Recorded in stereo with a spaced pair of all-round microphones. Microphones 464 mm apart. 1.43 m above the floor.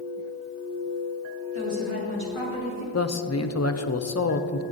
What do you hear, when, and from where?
1.5 s a woman speaking: 90° right, 4 m; by 2.8 s 75° right (ahead or behind), 2.5 m
2.9 s a man speaking: 35° left (ahead or behind), 0.5 m